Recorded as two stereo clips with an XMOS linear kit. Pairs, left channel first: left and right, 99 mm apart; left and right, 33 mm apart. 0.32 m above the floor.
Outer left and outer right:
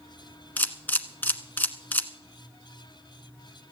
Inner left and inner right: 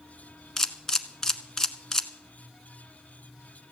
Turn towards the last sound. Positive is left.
turn(degrees=15)  # may be behind; listen again after turning